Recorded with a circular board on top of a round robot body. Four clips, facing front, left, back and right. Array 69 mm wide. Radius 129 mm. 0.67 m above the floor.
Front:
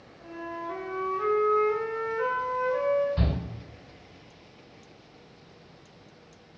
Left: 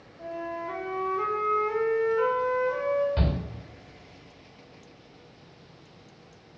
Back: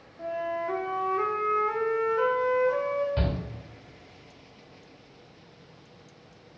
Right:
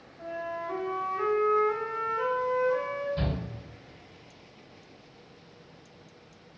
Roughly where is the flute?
Behind.